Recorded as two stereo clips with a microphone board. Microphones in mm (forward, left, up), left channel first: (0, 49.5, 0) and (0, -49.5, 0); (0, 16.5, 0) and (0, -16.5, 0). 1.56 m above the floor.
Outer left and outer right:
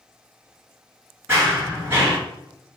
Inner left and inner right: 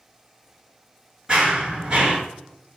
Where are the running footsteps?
20° right (ahead or behind), 1.6 m.